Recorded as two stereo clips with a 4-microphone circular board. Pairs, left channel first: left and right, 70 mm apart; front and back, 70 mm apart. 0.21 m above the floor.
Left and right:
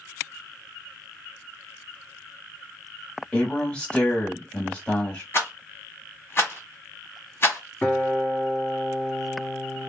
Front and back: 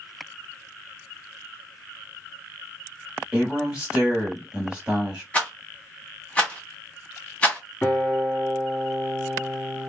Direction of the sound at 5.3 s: 60° left.